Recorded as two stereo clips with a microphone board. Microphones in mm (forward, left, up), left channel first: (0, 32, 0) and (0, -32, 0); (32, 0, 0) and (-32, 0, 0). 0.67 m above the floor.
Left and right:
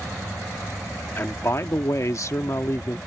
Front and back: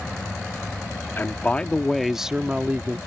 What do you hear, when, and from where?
1.2 s a man speaking: 50° left; by 3.0 s 125° left